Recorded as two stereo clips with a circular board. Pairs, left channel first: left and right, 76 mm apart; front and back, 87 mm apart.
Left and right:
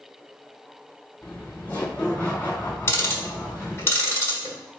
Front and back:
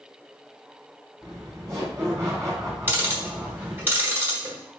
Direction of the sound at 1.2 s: 150° left.